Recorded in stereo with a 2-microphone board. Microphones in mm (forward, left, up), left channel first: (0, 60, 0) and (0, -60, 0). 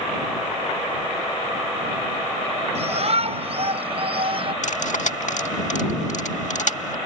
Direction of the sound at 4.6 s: 80° left.